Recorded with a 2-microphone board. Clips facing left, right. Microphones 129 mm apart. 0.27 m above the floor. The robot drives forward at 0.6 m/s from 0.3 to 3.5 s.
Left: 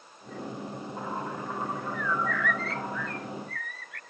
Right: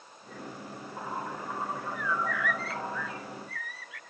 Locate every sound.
1.9 s a bird: 5° right (ahead or behind); by 4.0 s centre (ahead or behind)